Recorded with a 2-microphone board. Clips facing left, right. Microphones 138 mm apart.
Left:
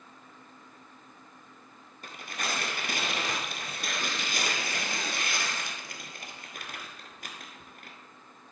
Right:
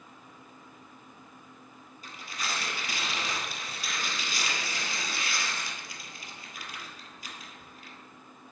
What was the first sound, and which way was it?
Tearing paper, 60° left (ahead or behind).